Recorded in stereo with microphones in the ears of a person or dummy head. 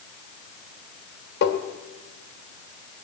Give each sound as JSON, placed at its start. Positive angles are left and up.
{"t": 1.4, "sound": "tapping", "side_deg": 65, "distance_m": 2.0}